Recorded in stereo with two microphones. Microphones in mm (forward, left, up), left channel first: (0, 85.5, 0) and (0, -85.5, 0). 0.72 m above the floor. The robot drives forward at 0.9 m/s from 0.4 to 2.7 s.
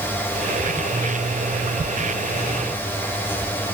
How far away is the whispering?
No whispering in this recording.